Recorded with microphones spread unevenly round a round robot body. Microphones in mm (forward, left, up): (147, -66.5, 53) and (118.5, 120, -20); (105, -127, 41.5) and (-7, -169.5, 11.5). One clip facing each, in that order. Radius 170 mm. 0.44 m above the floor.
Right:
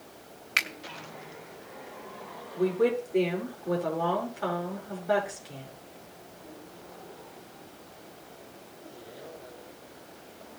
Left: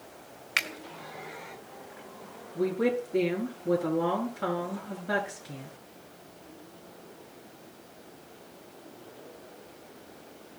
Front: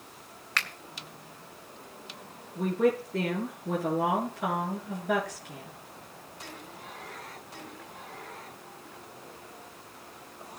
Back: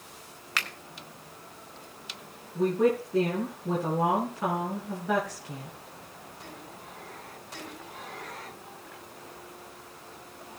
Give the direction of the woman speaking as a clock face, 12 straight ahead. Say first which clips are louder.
Right 2 dB, back 2 dB; 7 o'clock.